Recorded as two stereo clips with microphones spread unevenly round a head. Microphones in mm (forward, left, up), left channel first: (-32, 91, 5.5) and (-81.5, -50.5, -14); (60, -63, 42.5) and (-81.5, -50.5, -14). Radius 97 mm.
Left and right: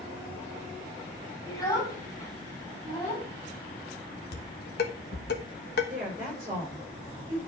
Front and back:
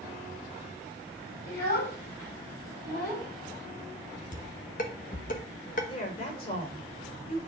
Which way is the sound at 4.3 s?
35° left.